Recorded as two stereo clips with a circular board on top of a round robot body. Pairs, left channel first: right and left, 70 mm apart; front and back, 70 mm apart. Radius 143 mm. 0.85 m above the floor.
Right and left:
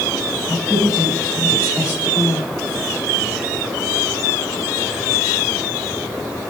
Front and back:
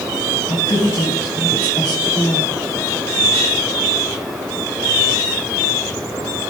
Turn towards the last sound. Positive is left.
turn(degrees=25)